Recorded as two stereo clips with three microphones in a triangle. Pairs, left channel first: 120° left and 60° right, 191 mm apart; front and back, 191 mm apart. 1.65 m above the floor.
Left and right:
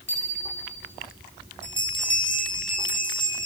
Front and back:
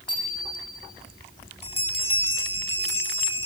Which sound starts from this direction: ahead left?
A bell, at 1.6 s.